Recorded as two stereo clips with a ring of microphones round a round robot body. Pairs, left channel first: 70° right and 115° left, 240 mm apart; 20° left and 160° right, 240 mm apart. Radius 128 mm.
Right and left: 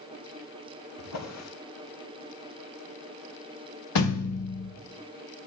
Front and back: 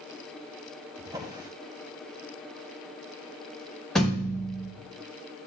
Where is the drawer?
80° right, 2.5 m.